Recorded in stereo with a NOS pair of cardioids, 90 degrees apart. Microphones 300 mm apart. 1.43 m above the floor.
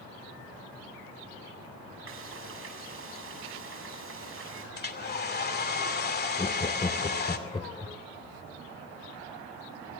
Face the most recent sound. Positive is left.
turn(degrees=15)